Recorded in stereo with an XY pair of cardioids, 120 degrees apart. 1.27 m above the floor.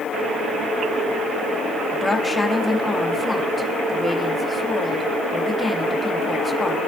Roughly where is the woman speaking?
Ahead.